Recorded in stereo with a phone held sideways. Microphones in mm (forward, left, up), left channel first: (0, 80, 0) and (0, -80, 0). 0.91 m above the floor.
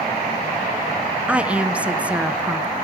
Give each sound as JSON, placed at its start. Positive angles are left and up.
{"t": 1.3, "sound": "a woman speaking", "side_deg": -5, "distance_m": 0.7}